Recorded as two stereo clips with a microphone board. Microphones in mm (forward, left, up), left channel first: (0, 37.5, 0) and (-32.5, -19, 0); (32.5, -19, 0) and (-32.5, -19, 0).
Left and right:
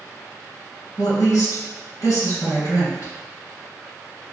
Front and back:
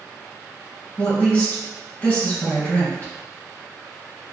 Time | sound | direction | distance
1.0 | a woman speaking | 60° left | 1.9 m